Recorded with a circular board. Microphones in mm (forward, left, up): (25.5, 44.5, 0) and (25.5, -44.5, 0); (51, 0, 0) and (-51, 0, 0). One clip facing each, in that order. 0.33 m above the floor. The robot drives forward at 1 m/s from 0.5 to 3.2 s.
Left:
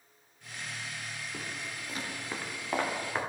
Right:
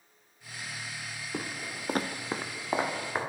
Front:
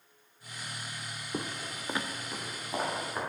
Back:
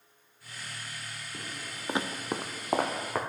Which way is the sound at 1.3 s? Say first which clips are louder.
Right 7 dB, front 7 dB; 35° right.